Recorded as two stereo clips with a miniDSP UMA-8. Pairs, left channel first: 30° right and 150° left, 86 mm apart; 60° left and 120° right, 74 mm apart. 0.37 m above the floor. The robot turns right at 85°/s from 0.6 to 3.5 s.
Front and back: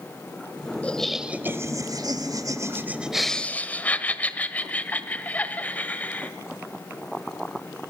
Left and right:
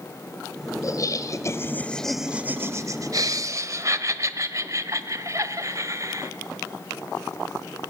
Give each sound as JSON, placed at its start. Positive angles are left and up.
{"t": 0.8, "sound": "laughter", "azimuth_deg": 40, "distance_m": 1.5}